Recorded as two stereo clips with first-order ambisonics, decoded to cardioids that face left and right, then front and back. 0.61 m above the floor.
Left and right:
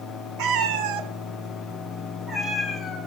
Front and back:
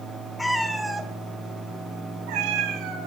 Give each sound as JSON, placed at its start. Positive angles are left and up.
{"t": 0.4, "sound": "a cat meowing", "azimuth_deg": -80, "distance_m": 1.0}